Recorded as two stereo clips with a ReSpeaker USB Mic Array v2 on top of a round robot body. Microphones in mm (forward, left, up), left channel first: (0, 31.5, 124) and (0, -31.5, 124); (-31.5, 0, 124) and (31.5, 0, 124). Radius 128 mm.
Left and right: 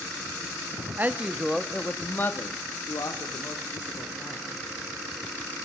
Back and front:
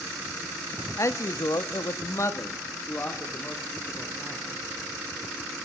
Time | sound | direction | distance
1.0 | a man speaking | 150° right | 1.3 m